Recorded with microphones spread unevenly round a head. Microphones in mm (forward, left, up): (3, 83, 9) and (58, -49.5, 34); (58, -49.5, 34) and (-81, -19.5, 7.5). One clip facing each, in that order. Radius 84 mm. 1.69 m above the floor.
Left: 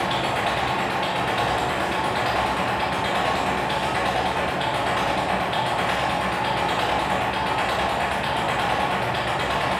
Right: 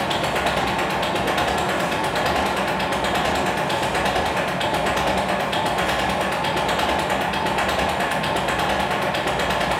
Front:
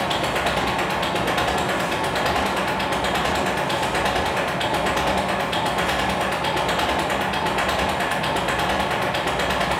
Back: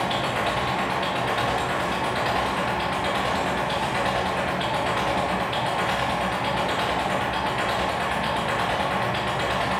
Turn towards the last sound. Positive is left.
turn(degrees=-40)